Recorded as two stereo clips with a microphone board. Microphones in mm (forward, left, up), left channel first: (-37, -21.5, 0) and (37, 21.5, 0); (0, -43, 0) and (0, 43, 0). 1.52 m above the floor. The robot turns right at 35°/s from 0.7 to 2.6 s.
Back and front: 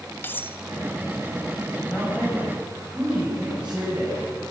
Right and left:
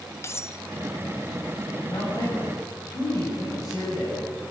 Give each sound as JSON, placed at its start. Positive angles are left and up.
{"t": 0.2, "sound": "cutlery clinking", "azimuth_deg": -105, "distance_m": 0.7}
{"t": 1.9, "sound": "a man speaking", "azimuth_deg": -70, "distance_m": 8.5}